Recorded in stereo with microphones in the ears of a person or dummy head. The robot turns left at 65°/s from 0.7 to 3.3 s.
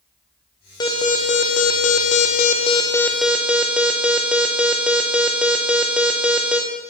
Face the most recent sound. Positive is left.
turn(degrees=-5)